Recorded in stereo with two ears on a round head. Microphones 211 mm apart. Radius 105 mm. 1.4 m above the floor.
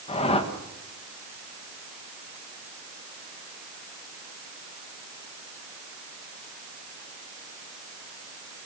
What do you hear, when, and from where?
0.1 s a whoosh: 25° left (ahead or behind), 1.7 m